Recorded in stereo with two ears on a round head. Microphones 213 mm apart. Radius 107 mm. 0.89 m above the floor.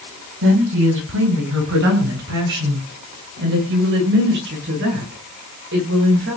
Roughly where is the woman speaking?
Right.